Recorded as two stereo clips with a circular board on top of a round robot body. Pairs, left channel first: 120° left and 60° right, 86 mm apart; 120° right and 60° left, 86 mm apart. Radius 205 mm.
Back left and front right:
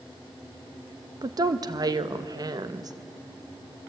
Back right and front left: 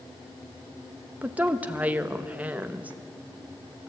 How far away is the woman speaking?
About 1.1 m.